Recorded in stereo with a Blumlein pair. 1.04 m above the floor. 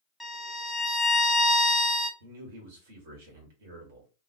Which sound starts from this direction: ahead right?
A man speaking, at 2.2 s.